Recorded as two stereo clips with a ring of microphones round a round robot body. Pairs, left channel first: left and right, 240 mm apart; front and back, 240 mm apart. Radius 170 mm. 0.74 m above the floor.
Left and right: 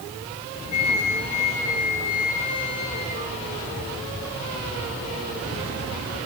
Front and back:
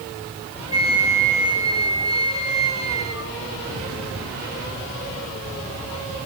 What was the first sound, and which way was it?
A flute, 105° left.